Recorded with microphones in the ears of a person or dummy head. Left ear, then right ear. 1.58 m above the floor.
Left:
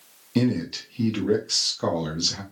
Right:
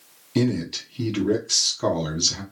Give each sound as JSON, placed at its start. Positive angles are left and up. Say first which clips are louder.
{"t": 0.3, "sound": "a man speaking", "louder": "right 1 dB", "side_deg": 0, "distance_m": 0.8}